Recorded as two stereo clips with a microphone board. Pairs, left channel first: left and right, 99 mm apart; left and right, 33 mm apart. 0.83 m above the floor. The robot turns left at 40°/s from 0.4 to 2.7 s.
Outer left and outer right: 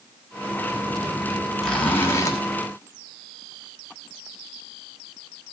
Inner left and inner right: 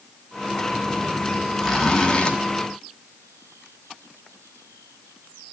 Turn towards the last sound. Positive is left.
turn(degrees=130)